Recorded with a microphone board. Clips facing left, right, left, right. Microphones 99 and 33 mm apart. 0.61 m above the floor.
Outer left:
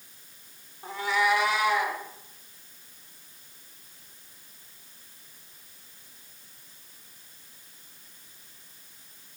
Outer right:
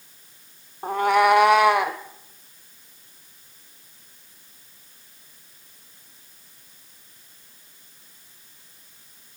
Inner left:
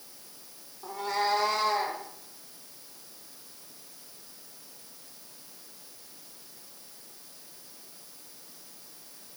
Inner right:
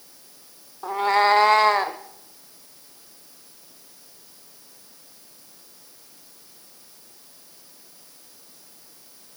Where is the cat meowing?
50° right (ahead or behind), 0.6 m; by 2.0 s 65° right (ahead or behind), 1.1 m.